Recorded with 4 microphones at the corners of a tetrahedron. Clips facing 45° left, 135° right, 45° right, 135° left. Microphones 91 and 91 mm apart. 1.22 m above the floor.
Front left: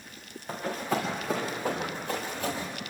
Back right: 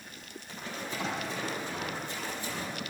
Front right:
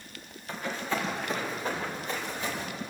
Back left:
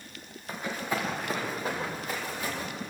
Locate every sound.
0.5 s running footsteps: 60° left, 6.5 m; by 2.6 s 50° left, 8.5 m